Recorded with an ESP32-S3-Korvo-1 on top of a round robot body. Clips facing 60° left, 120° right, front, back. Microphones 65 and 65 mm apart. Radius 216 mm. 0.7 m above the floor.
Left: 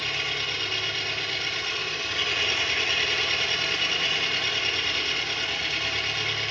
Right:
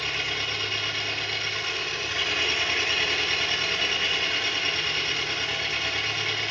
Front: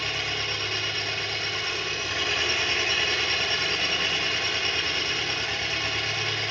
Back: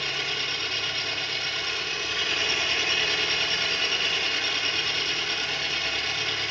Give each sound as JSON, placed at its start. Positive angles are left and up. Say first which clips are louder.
{"t": 0.0, "sound": "an engine running", "louder": "even, front 1 dB", "azimuth_deg": -40, "distance_m": 2.5}